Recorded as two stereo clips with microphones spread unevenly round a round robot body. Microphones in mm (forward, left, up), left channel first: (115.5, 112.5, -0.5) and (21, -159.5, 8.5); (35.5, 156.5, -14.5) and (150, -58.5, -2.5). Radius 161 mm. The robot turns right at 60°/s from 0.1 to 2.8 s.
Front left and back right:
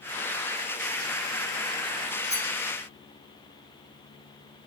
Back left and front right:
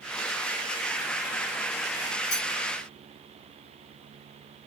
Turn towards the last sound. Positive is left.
turn(degrees=-160)